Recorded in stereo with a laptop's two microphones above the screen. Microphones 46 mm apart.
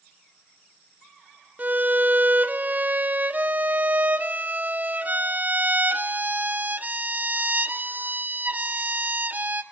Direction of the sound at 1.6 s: 35° right (ahead or behind).